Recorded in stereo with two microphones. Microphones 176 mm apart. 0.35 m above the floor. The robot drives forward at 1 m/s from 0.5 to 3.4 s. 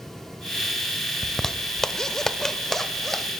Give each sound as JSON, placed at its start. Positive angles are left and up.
{"t": 1.2, "sound": "a zipper", "side_deg": 0, "distance_m": 1.1}